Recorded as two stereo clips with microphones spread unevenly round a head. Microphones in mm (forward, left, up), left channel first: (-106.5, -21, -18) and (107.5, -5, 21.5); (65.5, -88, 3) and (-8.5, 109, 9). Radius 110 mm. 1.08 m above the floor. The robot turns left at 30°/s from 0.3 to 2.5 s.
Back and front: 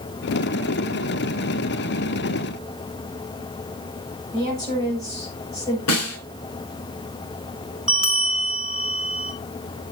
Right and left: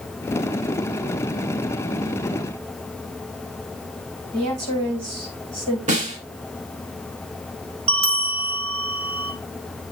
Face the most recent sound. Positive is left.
turn(degrees=90)